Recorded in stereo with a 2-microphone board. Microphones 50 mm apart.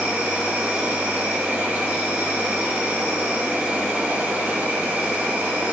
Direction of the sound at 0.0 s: 35° right (ahead or behind).